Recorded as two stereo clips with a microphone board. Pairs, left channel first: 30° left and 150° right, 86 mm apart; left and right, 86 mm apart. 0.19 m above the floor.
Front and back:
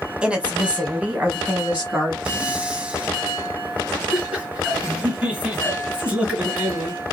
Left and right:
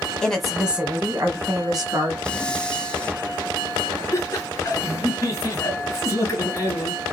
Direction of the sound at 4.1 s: 135° left.